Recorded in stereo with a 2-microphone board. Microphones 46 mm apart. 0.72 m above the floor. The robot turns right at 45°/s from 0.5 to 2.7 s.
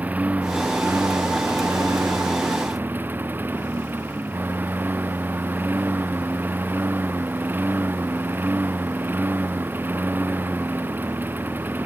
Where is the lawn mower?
145° right; by 11.9 s 45° right.